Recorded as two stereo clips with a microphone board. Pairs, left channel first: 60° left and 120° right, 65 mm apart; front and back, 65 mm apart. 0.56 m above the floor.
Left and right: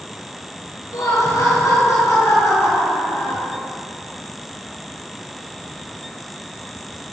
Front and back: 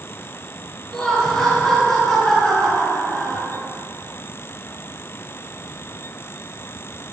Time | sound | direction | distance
0.9 | laughter | 80° left | 5.5 m